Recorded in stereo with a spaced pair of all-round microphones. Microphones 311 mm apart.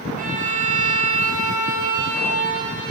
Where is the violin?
25° right (ahead or behind), 1.0 m.